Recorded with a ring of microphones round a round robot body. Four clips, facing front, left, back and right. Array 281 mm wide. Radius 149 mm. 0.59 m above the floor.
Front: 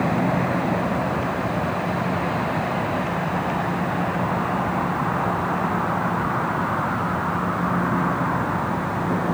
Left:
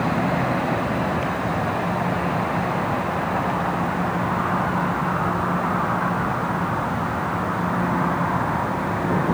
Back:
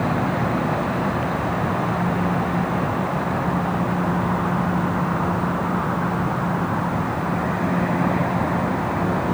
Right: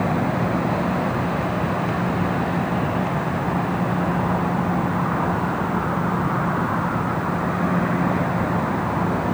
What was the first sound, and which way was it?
Only background noise.